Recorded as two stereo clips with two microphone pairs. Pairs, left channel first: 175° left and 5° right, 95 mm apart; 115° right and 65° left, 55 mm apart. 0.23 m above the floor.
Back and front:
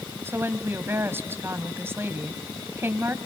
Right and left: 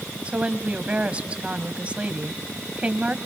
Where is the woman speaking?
25° left, 1.2 m.